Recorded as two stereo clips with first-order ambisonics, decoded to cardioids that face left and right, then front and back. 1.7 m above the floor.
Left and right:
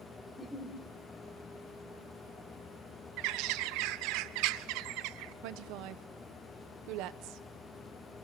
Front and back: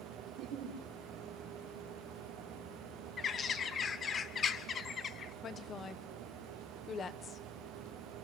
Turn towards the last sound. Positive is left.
turn(degrees=-65)